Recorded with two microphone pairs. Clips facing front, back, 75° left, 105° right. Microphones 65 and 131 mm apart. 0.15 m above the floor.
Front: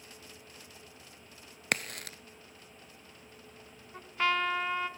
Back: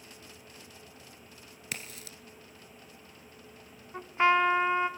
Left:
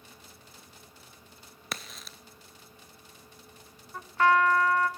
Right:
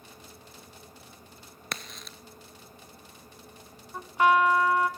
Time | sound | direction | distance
1.7 | a crack | 10° right | 0.7 m
3.9 | a trumpet | 165° right | 0.7 m